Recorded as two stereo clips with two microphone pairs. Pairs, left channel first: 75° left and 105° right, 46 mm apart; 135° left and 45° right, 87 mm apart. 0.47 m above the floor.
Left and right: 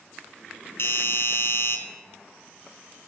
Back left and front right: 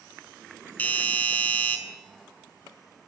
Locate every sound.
0.8 s a doorbell: 65° left, 3 m